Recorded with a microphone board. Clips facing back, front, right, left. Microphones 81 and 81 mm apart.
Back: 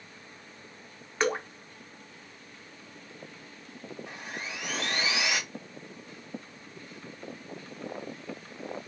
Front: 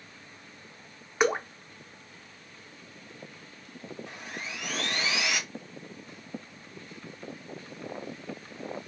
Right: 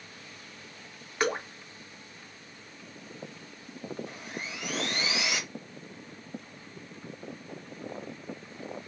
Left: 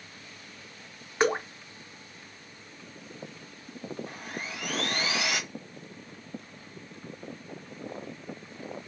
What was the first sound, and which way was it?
Dripping, 60° left.